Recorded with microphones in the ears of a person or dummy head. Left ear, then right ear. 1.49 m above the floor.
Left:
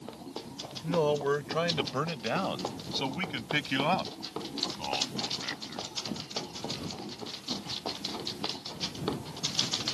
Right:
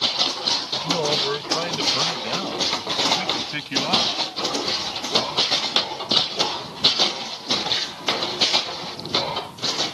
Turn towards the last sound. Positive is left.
turn(degrees=10)  # may be behind; listen again after turning